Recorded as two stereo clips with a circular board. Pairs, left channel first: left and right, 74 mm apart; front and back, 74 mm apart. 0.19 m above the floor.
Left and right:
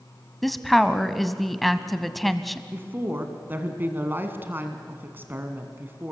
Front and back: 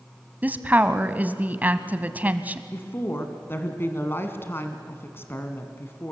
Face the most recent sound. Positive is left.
turn(degrees=-45)